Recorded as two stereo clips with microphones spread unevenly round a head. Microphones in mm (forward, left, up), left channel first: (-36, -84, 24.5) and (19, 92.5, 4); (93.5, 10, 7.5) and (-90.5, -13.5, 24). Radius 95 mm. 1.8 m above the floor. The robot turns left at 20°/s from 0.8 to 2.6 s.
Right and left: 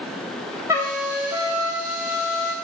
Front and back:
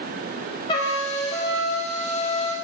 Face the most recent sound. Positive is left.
turn(degrees=-40)